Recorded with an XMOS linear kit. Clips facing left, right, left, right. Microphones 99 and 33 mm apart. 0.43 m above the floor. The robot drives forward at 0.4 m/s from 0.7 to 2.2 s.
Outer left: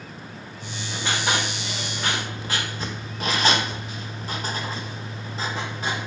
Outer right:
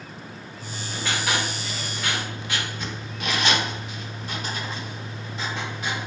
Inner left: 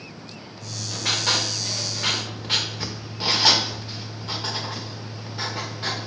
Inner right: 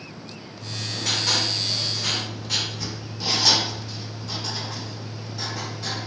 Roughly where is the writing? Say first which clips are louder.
Outer left 1 dB, inner right 1 dB; left.